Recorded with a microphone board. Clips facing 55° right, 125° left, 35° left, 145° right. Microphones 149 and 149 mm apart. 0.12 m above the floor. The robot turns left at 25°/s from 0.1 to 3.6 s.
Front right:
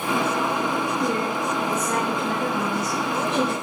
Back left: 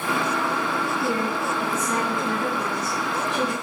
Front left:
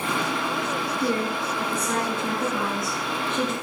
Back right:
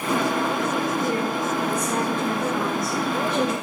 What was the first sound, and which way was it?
A woman speaking, 10° right.